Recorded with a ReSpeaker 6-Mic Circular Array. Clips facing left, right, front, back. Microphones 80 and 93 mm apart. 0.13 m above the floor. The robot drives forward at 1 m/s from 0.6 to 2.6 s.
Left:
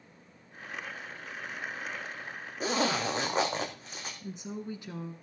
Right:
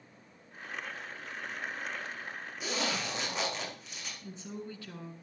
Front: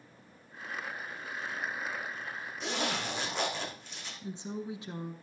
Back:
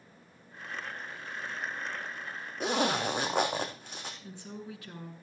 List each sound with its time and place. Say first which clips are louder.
2.6 s a zipper: left 6 dB, back 6 dB; 140° left, 3 m
4.2 s a woman speaking: left 3 dB, front 5 dB; 40° left, 1.3 m